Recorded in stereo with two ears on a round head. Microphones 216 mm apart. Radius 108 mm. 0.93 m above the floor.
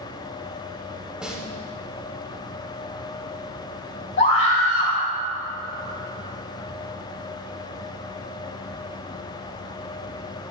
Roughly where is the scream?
Left.